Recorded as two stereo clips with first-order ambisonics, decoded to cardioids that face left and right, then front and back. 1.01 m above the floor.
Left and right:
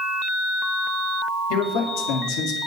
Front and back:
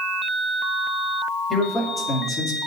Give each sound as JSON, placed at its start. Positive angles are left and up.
{"t": 1.5, "sound": "a man speaking", "azimuth_deg": 80, "distance_m": 2.5}